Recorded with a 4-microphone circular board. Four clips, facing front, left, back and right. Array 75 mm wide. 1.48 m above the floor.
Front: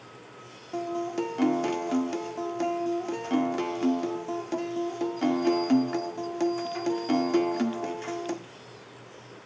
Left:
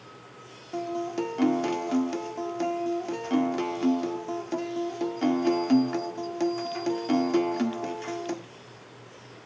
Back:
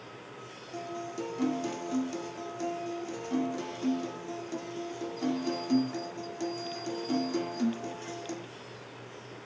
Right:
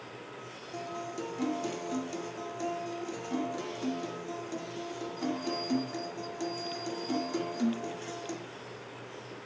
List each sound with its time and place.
0.7 s a guitar: 35° left, 1.6 m